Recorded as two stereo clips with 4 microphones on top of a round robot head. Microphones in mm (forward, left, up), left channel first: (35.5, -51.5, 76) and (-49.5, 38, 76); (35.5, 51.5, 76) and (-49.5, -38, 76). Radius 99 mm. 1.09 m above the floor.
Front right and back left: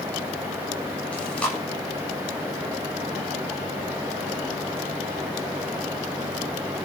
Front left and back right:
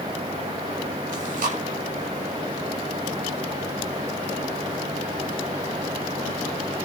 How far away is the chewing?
About 7.5 m.